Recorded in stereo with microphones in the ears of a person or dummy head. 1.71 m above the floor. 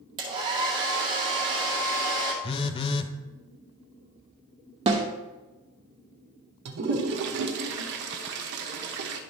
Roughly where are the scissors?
I don't hear scissors.